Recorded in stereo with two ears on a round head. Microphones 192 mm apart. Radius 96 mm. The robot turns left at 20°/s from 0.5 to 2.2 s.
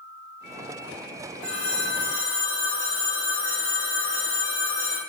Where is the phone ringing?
50° left (ahead or behind), 1.9 m; by 5.0 s 35° left (ahead or behind), 1.9 m.